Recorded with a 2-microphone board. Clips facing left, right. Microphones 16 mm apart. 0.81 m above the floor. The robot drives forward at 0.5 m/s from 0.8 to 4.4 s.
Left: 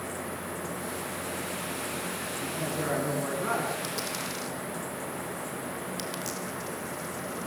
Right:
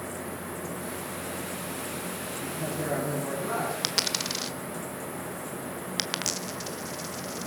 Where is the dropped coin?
55° right (ahead or behind), 1.2 m; by 7.5 s 45° right (ahead or behind), 1.3 m.